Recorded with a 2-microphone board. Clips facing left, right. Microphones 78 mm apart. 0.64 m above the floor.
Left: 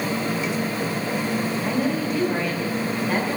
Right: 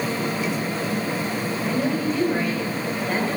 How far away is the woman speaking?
About 3.5 m.